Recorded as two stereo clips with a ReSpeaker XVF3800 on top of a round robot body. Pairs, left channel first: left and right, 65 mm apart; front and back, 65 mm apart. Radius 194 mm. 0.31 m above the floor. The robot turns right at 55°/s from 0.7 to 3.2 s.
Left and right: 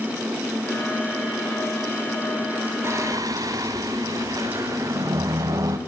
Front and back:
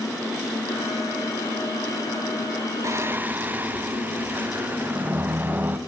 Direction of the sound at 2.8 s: 135° right.